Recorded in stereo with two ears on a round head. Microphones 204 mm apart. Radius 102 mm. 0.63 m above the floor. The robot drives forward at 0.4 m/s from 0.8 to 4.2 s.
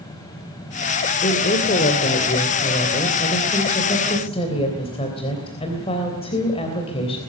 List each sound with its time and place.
1.2 s a woman speaking: 35° left (ahead or behind), 2 m; by 7.2 s 25° left (ahead or behind), 3 m